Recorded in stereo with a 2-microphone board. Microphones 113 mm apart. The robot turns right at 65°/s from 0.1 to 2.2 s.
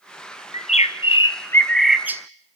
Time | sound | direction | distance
0.5 | a bird | 95° left | 1.2 m